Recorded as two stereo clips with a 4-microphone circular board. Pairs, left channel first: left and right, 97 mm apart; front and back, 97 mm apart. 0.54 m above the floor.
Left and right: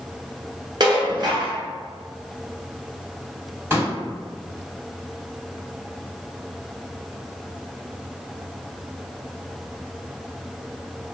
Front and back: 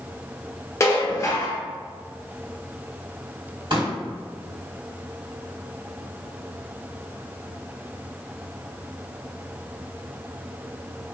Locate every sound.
0.8 s dishes clattering: 55° right, 0.7 m
3.7 s a pop: 150° right, 1.9 m